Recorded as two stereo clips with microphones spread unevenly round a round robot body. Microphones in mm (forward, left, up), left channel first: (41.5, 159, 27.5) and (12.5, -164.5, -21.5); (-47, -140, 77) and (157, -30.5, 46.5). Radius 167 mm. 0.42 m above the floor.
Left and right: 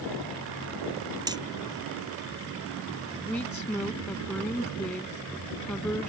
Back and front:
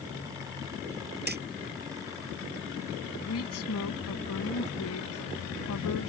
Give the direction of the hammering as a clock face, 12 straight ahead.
1 o'clock.